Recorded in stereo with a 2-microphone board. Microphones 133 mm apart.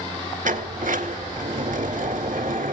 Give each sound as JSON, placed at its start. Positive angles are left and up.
{"t": 0.4, "sound": "a sliding door", "side_deg": -85, "distance_m": 2.0}